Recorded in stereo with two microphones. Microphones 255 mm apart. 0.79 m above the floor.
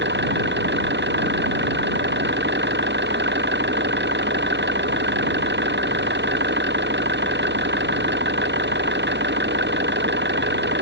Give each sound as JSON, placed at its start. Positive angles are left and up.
{"t": 0.0, "sound": "an engine running", "side_deg": -40}